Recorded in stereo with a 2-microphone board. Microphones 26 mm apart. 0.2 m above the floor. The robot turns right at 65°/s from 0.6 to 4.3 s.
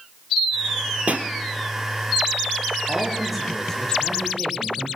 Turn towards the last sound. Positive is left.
turn(degrees=60)